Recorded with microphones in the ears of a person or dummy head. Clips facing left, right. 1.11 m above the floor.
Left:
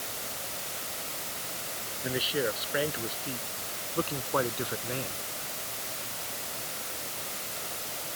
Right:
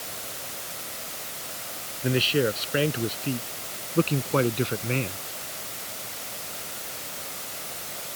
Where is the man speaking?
40° right (ahead or behind).